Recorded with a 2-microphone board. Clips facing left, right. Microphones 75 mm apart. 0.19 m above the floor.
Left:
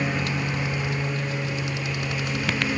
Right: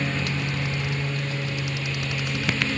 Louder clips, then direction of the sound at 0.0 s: Left 1 dB; 15° left (ahead or behind).